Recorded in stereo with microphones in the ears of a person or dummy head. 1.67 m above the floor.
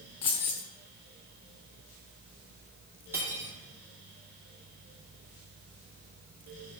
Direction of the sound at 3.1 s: 10° right (ahead or behind).